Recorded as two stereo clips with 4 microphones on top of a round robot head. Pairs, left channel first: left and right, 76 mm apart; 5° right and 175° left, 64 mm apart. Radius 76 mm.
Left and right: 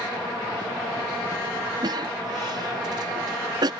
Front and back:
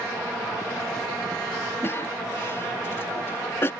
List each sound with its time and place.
1.8 s a cough: 60° right